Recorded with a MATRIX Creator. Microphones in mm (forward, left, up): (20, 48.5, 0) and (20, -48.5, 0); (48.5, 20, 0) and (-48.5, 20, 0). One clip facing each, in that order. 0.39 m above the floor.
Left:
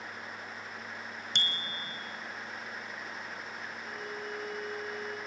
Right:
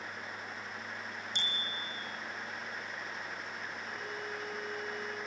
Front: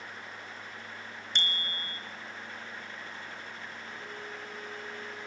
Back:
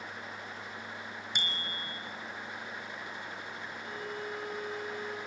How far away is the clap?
No clap in this recording.